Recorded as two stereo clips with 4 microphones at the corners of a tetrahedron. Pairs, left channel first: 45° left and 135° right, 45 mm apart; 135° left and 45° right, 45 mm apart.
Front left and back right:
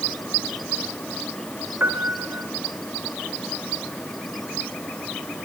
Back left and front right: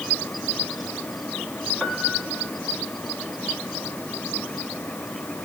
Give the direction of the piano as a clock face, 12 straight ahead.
4 o'clock.